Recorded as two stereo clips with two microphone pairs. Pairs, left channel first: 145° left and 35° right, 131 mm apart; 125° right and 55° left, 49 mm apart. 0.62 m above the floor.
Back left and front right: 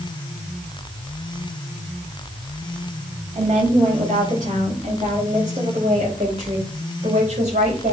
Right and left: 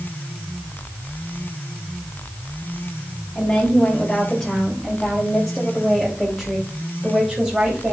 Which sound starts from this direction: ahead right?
A woman speaking, at 3.4 s.